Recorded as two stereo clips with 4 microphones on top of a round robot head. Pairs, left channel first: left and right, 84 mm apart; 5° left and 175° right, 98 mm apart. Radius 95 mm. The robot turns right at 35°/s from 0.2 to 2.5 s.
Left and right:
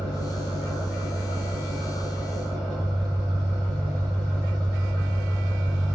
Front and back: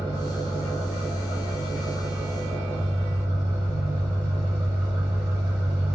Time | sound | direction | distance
0.0 | an engine running | 165° left | 1.8 m